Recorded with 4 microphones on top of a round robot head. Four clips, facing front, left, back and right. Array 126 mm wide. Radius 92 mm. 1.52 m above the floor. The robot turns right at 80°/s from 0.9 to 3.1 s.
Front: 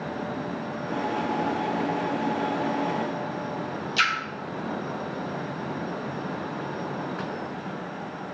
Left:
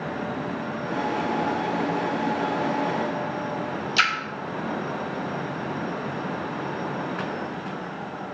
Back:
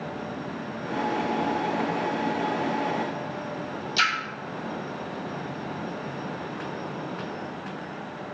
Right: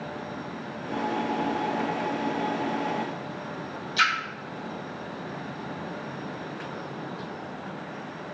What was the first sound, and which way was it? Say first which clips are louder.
A splash: even, even; 100° left.